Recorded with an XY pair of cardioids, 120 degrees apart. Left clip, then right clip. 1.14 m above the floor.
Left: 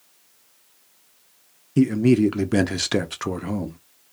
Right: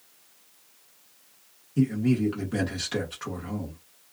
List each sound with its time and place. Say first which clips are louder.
1.8 s a man speaking: left 8 dB; 60° left, 0.7 m